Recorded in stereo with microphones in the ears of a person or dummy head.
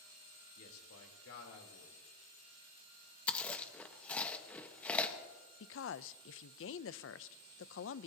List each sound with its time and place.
0.6 s a man speaking: 85° left, 3.5 m
3.3 s chewing: 5° left (ahead or behind), 1.1 m
5.6 s a woman speaking: 65° left (ahead or behind), 0.5 m